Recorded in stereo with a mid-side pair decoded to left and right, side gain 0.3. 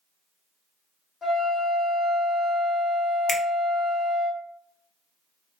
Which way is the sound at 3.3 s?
30° left.